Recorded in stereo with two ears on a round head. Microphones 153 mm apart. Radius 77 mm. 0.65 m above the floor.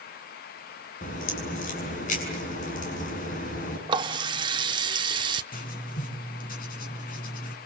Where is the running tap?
30° right (ahead or behind), 1.0 m.